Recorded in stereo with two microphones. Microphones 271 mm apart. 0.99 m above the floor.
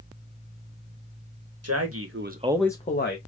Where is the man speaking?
65° right (ahead or behind), 1.0 m; by 3.2 s 45° left (ahead or behind), 0.8 m.